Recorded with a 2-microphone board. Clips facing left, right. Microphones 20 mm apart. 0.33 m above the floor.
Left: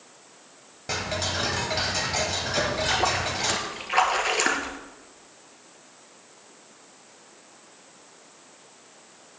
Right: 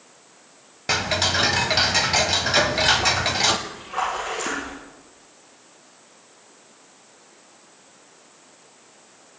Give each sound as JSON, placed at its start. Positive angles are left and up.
{"t": 0.9, "sound": "ticking", "side_deg": -55, "distance_m": 0.7}
{"t": 2.6, "sound": "a splash", "side_deg": 75, "distance_m": 2.0}